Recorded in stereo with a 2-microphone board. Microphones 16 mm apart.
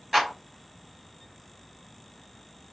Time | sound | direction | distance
0.1 | a clap | 15° right (ahead or behind) | 3 m